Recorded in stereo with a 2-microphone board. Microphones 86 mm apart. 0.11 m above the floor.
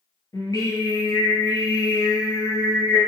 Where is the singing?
50° left (ahead or behind), 1.4 m.